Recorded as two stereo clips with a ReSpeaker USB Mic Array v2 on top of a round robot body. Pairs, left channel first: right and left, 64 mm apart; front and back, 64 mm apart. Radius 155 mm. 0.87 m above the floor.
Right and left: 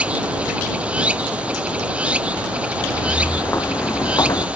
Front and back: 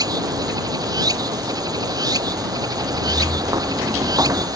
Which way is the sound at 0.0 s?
160° left.